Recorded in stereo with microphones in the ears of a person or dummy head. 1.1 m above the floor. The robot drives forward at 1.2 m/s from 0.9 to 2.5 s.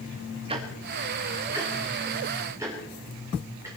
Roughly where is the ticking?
Right.